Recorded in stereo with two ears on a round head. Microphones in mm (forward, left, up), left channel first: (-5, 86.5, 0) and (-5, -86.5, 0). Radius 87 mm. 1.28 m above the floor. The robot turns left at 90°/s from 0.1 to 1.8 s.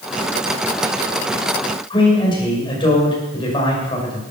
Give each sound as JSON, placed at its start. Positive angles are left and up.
{"t": 1.9, "sound": "a man speaking", "side_deg": 25, "distance_m": 6.5}